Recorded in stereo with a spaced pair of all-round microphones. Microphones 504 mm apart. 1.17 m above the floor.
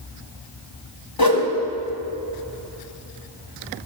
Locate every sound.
1.2 s a whoosh: 45° left (ahead or behind), 1.9 m